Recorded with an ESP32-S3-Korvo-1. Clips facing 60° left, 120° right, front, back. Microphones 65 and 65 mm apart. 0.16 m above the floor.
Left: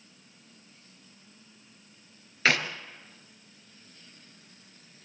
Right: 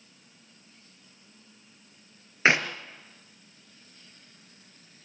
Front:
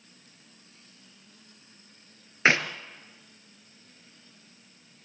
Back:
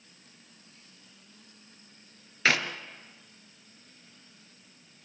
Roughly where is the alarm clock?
No alarm clock in this recording.